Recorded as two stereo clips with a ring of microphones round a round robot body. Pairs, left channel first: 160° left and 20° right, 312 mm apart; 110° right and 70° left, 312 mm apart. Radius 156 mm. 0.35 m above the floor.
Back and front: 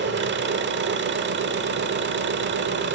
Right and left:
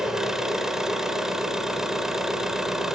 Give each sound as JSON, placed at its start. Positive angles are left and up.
{"t": 0.0, "sound": "an engine running", "azimuth_deg": -20, "distance_m": 1.1}